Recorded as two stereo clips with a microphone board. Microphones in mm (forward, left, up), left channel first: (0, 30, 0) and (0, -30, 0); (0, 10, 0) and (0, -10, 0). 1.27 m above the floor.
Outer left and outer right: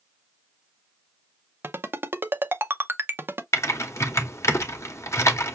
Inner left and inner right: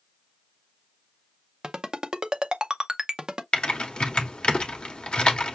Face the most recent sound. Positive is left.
turn(degrees=55)  # may be behind; listen again after turning